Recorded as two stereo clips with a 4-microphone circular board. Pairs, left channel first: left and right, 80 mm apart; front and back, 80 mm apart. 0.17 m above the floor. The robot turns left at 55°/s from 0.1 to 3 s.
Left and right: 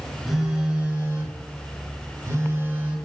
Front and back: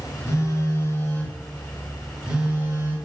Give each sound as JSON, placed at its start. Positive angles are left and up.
{"t": 0.3, "sound": "a phone buzzing", "azimuth_deg": 5, "distance_m": 0.7}